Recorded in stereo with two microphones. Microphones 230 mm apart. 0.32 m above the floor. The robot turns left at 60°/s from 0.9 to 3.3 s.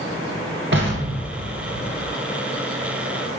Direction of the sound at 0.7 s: 55° right (ahead or behind).